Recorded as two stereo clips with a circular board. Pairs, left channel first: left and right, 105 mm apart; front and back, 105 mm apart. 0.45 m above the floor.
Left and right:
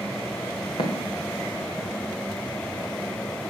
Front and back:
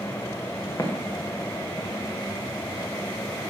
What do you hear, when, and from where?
0.8 s footsteps: 65° left, 1.9 m; by 3.5 s 55° left, 5 m